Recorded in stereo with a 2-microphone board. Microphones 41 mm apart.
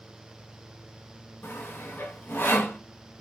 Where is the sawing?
70° left (ahead or behind), 0.8 m.